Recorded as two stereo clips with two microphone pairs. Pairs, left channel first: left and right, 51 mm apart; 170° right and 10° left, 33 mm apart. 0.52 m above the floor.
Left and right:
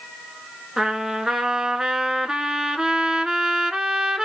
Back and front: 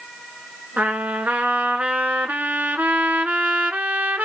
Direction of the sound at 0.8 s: 10° right.